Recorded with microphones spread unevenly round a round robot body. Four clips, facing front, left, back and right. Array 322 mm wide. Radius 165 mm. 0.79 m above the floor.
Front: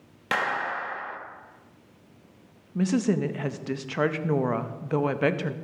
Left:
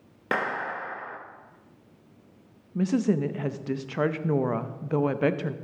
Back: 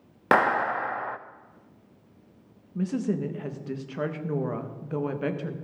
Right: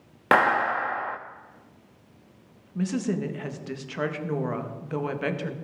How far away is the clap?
About 0.6 m.